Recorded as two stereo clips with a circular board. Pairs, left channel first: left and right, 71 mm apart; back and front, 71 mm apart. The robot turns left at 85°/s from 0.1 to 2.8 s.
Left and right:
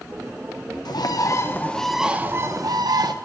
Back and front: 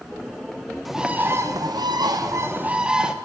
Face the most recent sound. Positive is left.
turn(degrees=-75)